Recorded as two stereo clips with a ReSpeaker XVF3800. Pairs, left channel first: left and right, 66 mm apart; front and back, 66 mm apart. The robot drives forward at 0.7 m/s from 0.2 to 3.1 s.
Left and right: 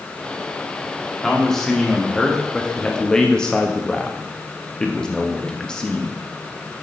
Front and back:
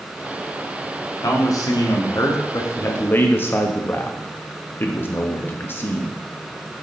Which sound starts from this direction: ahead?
A man speaking, at 1.2 s.